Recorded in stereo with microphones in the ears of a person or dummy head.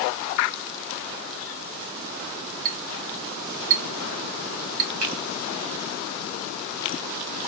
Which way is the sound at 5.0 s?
85° right.